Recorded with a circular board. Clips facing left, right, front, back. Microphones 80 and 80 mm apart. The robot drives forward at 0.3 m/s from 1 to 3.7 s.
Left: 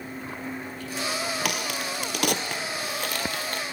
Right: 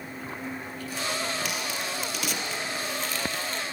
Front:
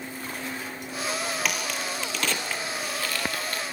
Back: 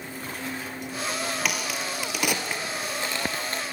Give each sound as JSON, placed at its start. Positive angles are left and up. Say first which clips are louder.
{"t": 1.4, "sound": "a crack", "louder": "left 2 dB, even", "azimuth_deg": 90, "distance_m": 1.2}